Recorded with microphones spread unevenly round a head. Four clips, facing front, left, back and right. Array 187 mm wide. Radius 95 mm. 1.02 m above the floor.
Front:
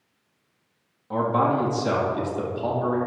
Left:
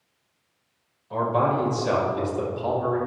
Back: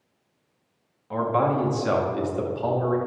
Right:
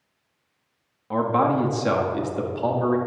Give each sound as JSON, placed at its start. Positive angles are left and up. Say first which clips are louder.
{"t": 1.1, "sound": "a man speaking", "louder": "right 2 dB, front 1 dB", "azimuth_deg": -70, "distance_m": 2.0}